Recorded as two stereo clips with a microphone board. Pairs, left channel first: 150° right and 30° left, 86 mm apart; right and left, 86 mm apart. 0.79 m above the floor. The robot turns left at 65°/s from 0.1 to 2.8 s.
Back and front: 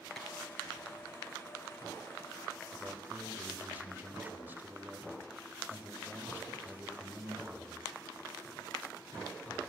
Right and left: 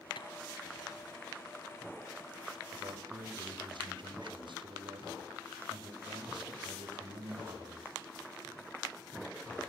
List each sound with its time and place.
0.2 s tapping: 65° right, 4.5 m; by 0.3 s 70° right, 4.5 m
2.7 s a man speaking: 105° left, 4 m; by 7.9 s 100° left, 4 m